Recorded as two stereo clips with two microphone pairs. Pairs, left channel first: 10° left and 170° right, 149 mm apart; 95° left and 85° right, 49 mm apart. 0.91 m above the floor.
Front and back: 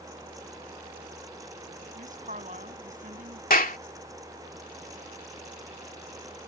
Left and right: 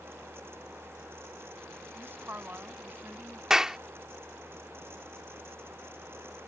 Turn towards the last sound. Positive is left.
turn(degrees=-10)